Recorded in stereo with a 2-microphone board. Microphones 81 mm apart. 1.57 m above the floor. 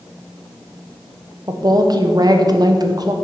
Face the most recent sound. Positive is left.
turn(degrees=-50)  # may be behind; listen again after turning